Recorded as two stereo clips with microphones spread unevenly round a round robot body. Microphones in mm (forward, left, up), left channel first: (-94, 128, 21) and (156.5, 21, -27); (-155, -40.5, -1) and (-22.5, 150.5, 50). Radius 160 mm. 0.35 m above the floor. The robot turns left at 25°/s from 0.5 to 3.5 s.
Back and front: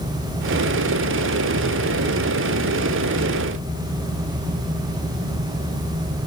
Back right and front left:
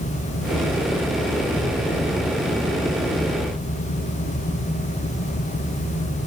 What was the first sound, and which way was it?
Only background noise.